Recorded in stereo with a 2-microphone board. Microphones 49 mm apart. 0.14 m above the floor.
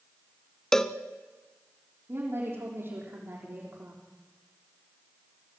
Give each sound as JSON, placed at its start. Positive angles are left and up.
{"t": 0.7, "sound": "a cowbell", "side_deg": 10, "distance_m": 0.8}
{"t": 2.1, "sound": "a woman speaking", "side_deg": -55, "distance_m": 7.0}